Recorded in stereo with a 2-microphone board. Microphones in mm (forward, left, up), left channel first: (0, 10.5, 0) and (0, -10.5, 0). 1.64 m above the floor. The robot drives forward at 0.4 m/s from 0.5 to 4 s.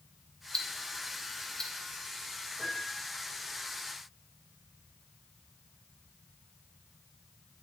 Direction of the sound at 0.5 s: 30° left (ahead or behind).